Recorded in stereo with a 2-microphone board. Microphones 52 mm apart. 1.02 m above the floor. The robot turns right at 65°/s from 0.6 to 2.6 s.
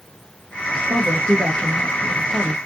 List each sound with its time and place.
0.9 s a woman speaking: 115° right, 1.2 m; by 2.6 s 5° right, 1.2 m